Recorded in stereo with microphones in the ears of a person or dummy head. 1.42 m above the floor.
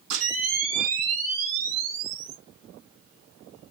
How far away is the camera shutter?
About 2.5 m.